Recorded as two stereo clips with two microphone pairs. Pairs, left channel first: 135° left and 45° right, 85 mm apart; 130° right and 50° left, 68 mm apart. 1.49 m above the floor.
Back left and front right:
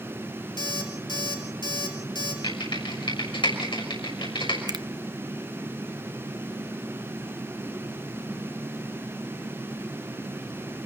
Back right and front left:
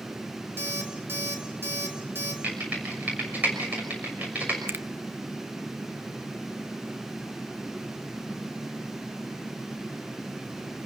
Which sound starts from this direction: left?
An alarm clock, at 0.6 s.